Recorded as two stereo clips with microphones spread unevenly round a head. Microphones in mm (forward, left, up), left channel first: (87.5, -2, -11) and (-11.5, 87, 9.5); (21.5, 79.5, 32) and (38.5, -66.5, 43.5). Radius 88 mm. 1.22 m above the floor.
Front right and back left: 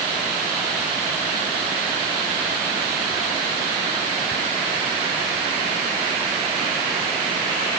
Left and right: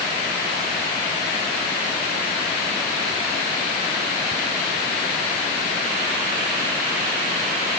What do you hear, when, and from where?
Only background noise.